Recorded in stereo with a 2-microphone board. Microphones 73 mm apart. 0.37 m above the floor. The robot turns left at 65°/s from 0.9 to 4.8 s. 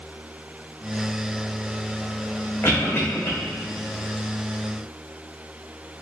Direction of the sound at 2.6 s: 35° left (ahead or behind).